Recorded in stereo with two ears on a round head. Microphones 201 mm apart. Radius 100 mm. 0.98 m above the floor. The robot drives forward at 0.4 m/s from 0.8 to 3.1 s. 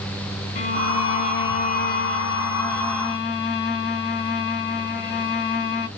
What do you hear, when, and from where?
0.6 s a violin: 35° left (ahead or behind), 1.9 m; by 5.9 s 50° left (ahead or behind), 1.4 m